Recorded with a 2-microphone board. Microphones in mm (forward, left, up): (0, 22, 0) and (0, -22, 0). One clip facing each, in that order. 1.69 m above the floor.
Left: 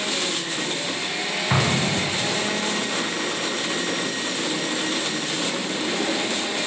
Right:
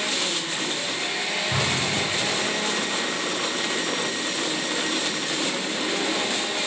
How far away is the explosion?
About 2 m.